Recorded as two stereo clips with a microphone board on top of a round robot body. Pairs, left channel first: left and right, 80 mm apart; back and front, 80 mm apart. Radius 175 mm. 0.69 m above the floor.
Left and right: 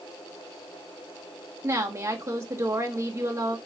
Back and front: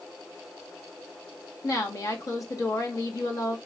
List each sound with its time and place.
1.6 s a woman speaking: 140° right, 1.8 m